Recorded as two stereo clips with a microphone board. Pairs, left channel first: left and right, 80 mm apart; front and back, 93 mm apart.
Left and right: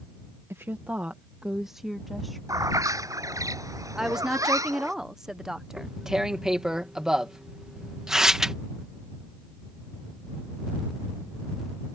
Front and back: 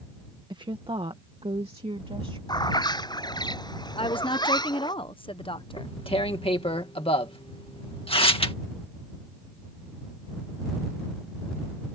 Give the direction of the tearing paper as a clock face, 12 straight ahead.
12 o'clock.